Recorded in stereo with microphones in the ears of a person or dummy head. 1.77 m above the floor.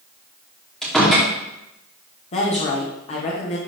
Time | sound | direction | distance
0.8 | a door slam | 5° left (ahead or behind) | 2.5 m
2.3 | a woman speaking | 40° left (ahead or behind) | 1.4 m